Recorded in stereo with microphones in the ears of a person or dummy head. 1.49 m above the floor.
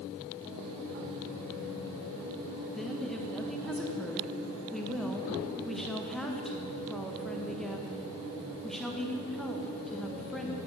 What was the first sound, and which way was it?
A woman speaking, 5° left (ahead or behind).